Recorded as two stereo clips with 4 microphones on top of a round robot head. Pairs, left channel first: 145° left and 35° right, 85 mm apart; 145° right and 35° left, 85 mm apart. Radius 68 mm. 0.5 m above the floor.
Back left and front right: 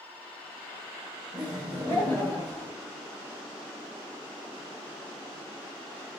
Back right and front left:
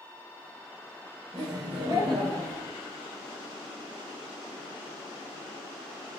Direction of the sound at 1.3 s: 70° left.